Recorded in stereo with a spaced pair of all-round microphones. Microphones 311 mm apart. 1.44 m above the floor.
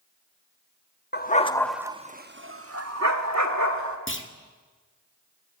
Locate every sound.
1.1 s a dog barking: 35° left (ahead or behind), 1.1 m; by 4.0 s 70° right (ahead or behind), 2.5 m
4.1 s a clunk: 40° left (ahead or behind), 1.7 m